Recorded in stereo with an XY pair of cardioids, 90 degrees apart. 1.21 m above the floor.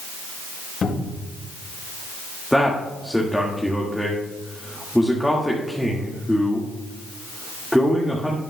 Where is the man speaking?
5° left, 1.8 m.